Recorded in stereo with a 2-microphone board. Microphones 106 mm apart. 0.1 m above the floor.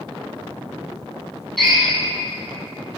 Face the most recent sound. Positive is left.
turn(degrees=0)  # may be behind; listen again after turning